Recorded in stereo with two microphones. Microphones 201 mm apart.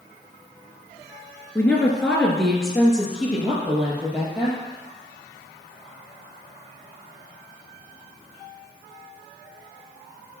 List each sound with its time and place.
1.6 s a woman speaking: 10° left (ahead or behind), 2 m; by 4.6 s 5° right (ahead or behind), 4.5 m